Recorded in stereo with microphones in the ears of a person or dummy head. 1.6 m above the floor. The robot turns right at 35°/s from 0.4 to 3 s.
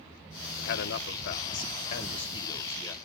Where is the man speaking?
85° left, 1.1 m; by 3.0 s 170° left, 1.1 m.